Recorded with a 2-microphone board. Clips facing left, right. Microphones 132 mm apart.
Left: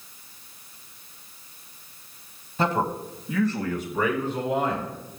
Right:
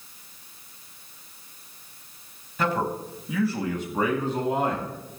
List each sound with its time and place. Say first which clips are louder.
2.6 s a man speaking: left 1 dB; 30° left (ahead or behind), 1.8 m; by 4.9 s 50° right (ahead or behind), 3 m